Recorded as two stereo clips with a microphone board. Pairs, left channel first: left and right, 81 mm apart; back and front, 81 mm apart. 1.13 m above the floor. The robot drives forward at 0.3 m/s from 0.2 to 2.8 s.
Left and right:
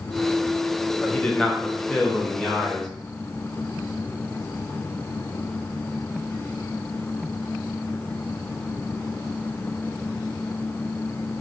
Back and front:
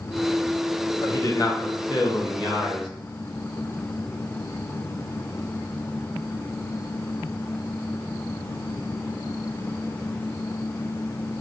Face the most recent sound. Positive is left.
turn(degrees=170)